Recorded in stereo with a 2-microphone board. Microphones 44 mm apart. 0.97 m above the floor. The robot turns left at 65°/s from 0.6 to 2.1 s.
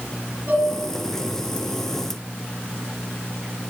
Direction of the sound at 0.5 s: 55° right (ahead or behind).